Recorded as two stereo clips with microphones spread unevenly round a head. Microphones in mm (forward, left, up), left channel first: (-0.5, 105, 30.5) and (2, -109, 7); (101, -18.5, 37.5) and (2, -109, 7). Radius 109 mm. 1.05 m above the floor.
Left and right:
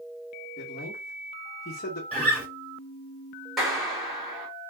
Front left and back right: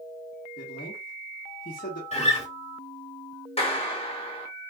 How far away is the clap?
About 1.9 m.